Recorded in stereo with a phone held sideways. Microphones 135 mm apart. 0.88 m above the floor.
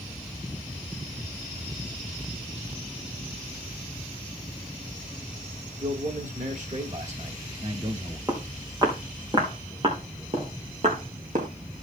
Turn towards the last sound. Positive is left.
turn(degrees=-65)  # may be behind; listen again after turning